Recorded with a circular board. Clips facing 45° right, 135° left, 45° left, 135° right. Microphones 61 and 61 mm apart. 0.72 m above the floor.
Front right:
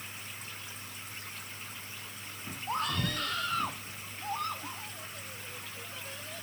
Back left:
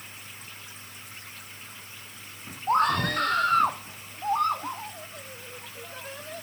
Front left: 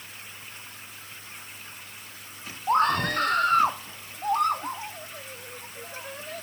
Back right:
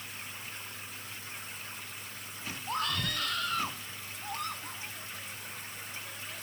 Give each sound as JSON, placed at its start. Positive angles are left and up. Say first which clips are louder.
{"t": 2.7, "sound": "a scream", "louder": "back left 10 dB, front left 12 dB", "azimuth_deg": 95}